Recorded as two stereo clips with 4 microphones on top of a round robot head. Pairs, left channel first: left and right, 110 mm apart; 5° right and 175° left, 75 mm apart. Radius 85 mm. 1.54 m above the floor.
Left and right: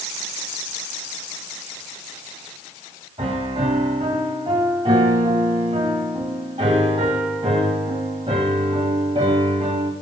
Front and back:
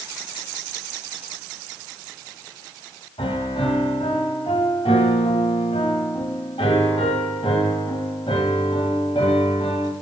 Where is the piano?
35° right, 1.9 m.